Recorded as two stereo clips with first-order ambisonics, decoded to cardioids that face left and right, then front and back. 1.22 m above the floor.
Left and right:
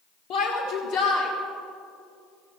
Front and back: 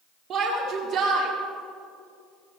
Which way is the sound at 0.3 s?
115° left.